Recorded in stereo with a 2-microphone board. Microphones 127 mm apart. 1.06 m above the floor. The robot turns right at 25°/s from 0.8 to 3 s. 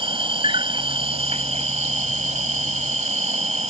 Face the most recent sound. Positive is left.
turn(degrees=-75)